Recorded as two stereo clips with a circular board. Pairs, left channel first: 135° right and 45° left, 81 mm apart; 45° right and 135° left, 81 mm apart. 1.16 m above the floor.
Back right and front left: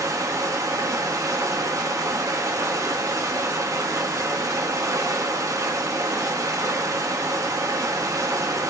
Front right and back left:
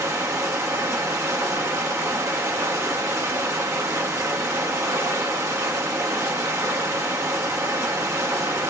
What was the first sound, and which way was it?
Running water, 90° left.